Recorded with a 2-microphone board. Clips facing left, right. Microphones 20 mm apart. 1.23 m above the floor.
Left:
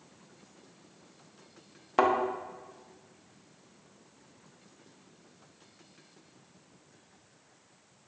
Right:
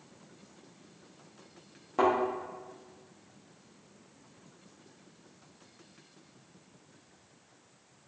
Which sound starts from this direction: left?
A thud, at 2.0 s.